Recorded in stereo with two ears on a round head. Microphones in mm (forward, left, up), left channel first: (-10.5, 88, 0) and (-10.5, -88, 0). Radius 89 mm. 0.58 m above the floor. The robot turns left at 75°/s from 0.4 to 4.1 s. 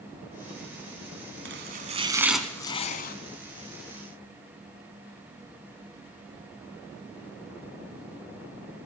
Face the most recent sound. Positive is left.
turn(degrees=50)